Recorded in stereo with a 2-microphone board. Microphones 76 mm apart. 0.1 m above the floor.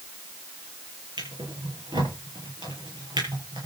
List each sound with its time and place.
1.2 s a drawer: 80° right, 8 m